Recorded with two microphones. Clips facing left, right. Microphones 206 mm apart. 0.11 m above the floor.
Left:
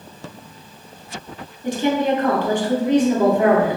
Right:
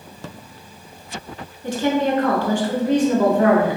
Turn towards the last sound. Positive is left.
turn(degrees=20)  # may be behind; listen again after turning